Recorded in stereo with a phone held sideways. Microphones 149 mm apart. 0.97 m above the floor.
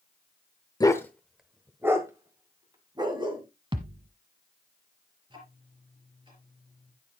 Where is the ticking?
35° right (ahead or behind), 4 m.